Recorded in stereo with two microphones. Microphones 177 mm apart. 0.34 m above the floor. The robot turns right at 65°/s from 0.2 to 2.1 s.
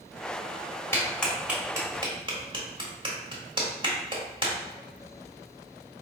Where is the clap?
15° left (ahead or behind), 1.1 m; by 4.5 s 30° right (ahead or behind), 1.1 m.